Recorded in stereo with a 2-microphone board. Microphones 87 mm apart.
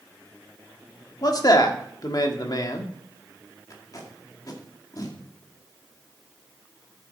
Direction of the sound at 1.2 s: 50° left (ahead or behind).